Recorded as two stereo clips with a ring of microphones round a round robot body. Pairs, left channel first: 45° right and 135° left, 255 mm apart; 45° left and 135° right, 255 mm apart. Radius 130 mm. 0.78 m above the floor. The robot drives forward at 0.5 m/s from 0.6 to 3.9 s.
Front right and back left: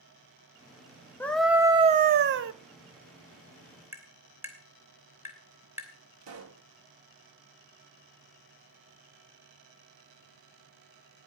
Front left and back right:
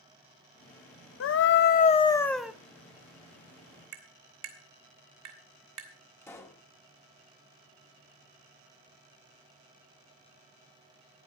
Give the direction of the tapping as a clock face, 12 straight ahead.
5 o'clock.